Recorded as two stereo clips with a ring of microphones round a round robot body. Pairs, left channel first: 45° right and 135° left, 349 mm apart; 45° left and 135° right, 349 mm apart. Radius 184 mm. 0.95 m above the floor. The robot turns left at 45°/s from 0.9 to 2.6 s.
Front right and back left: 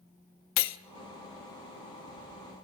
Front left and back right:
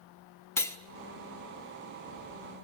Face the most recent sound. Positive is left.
turn(degrees=-115)